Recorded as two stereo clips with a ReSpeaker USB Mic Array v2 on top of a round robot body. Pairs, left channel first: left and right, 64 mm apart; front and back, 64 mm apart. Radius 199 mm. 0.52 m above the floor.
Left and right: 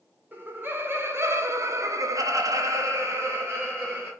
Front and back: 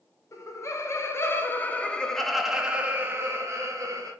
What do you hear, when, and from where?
0.3 s laughter: 30° right, 1.9 m; by 4.1 s 150° right, 1.7 m